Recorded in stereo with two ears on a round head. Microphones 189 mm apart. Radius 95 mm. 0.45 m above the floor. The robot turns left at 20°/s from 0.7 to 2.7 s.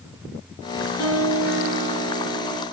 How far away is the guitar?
About 2 m.